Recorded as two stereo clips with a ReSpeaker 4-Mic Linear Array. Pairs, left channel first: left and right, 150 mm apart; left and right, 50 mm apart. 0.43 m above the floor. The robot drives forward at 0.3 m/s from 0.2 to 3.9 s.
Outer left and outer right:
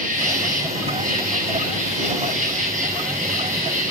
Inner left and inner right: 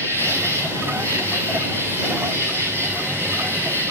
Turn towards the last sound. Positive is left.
turn(degrees=-55)  # may be behind; listen again after turning